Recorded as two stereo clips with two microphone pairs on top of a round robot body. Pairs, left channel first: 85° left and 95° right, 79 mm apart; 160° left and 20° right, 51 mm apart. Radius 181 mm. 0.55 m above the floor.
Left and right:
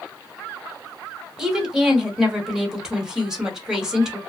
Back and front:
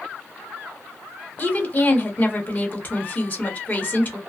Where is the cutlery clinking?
I don't hear cutlery clinking.